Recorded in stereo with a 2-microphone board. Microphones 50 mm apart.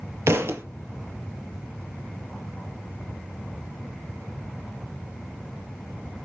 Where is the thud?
60° right (ahead or behind), 0.5 m.